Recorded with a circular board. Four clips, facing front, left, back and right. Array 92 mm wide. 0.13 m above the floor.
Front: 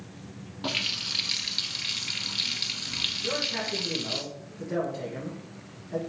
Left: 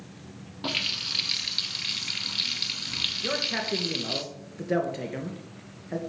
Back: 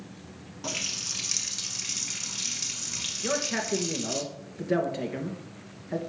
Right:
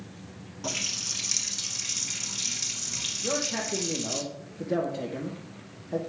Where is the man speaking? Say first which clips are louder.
Even, back 3 dB; 130° left, 2.5 m.